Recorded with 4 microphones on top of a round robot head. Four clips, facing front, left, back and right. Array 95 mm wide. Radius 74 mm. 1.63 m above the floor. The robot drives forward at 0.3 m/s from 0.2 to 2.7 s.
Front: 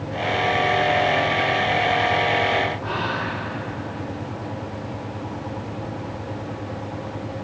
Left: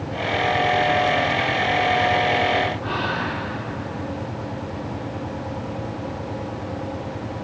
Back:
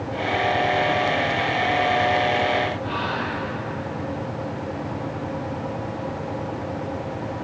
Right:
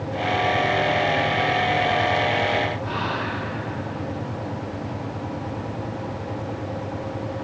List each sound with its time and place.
2.8 s whispering: 60° left, 5.5 m